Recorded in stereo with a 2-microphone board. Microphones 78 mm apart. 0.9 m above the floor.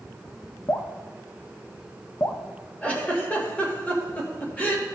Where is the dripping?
40° left (ahead or behind), 0.8 m.